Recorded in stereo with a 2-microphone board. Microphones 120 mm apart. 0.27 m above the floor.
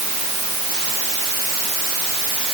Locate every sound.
Only background noise.